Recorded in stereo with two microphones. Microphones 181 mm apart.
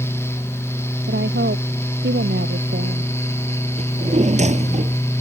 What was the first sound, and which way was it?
A woman speaking, 80° right.